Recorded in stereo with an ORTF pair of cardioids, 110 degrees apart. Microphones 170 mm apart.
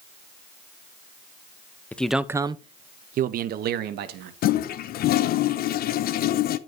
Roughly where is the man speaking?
Ahead.